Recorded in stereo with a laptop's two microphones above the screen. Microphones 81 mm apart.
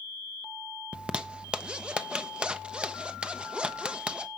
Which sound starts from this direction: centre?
A zipper, at 0.9 s.